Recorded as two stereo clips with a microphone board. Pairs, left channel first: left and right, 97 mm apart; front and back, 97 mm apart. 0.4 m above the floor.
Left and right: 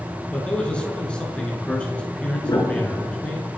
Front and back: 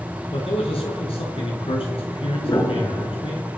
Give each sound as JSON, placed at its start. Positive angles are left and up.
{"t": 0.3, "sound": "a man speaking", "azimuth_deg": 10, "distance_m": 5.5}
{"t": 2.4, "sound": "a piano", "azimuth_deg": 40, "distance_m": 3.5}